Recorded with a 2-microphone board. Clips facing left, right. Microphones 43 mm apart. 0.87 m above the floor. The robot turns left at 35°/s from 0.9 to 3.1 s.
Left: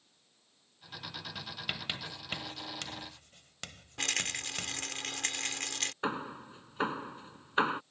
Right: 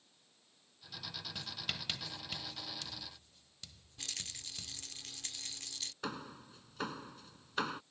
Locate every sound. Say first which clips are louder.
1.4 s writing: left 3 dB; 5° left (ahead or behind); by 4.9 s 65° left (ahead or behind)
4.0 s a rattle: left 13 dB; 75° left (ahead or behind)
6.0 s hammering: left 6 dB; 30° left (ahead or behind)